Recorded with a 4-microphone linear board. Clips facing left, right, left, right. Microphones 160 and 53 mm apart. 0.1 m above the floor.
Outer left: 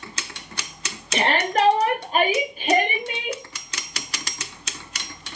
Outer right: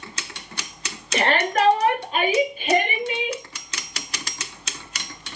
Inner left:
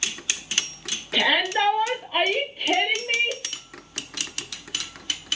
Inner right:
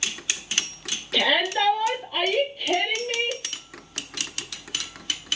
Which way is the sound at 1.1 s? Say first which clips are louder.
Even, inner left 1 dB; 25° left (ahead or behind).